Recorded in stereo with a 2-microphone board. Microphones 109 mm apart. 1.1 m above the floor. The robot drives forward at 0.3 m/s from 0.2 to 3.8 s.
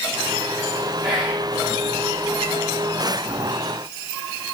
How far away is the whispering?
About 1.6 m.